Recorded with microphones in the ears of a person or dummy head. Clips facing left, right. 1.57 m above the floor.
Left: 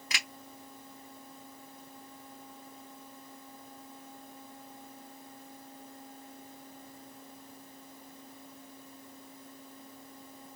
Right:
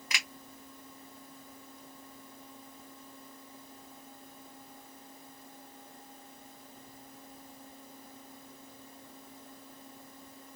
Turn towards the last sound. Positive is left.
turn(degrees=25)  # may be behind; listen again after turning